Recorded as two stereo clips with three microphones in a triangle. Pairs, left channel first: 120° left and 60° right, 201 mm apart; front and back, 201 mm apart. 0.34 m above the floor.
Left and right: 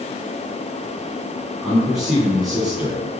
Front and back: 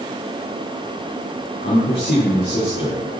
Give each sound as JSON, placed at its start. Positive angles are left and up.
{"t": 1.6, "sound": "a man speaking", "azimuth_deg": 30, "distance_m": 3.5}